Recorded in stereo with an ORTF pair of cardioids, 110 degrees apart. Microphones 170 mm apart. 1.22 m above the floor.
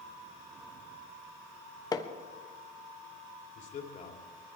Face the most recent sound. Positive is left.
turn(degrees=50)